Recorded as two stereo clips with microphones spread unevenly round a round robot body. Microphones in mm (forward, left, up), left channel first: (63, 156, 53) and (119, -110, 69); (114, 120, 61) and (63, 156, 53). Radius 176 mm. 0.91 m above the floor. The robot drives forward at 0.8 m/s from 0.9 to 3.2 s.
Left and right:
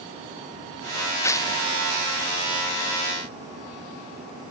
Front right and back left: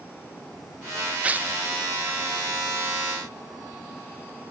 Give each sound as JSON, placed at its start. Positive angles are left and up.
{"t": 1.2, "sound": "tearing paper", "azimuth_deg": 165, "distance_m": 0.5}